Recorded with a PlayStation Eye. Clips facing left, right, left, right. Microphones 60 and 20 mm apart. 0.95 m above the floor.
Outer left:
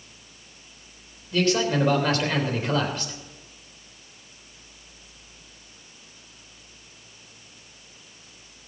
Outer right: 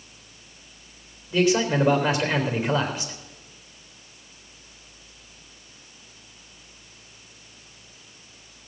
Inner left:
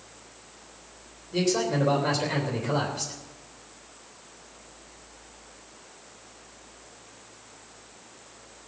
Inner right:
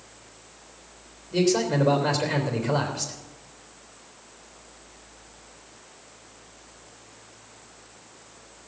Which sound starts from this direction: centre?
A man speaking, at 1.3 s.